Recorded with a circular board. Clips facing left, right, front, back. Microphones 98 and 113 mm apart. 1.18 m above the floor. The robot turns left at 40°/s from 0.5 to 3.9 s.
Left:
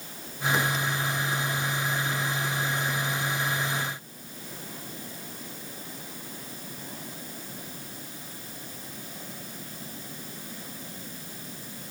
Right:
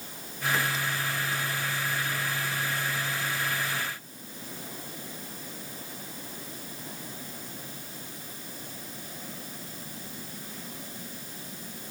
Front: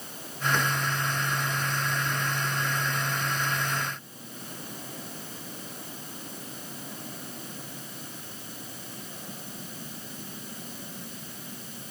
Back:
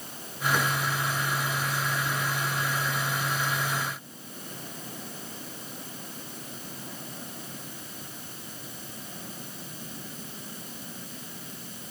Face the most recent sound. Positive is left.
No sound to turn to.